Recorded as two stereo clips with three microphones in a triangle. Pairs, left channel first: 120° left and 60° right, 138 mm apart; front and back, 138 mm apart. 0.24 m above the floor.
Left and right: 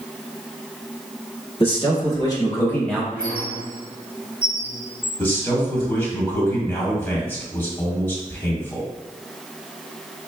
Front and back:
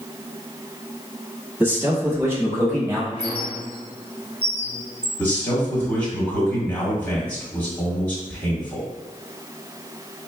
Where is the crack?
I don't hear a crack.